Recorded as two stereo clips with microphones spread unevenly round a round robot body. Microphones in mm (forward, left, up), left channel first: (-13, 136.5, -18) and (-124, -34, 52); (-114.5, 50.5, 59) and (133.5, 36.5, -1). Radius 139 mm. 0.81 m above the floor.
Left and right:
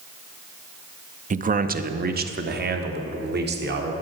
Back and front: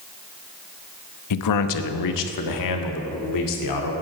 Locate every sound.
1.3 s a man speaking: 175° left, 0.8 m; by 3.9 s 165° right, 2 m